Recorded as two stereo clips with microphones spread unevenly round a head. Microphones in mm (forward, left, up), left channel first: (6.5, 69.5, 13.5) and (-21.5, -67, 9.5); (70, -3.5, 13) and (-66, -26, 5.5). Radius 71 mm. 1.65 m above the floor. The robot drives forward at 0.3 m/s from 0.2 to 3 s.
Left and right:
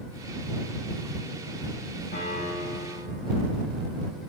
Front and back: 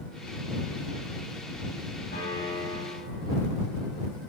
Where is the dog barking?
I don't hear a dog barking.